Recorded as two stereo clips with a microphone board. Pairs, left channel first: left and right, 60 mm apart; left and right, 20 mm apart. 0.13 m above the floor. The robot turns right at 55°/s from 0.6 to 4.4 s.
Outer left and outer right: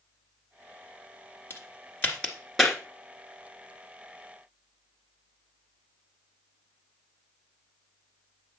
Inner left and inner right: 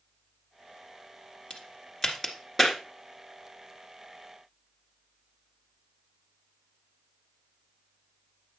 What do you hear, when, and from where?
1.5 s a crack: 40° left (ahead or behind), 1.7 m; by 2.8 s 5° right (ahead or behind), 1.7 m